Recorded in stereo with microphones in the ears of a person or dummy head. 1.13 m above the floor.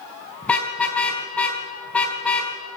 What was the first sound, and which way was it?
A car horn, 5° left (ahead or behind).